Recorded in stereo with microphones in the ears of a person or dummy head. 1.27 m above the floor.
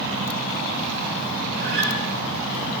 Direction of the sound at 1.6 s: 65° right (ahead or behind).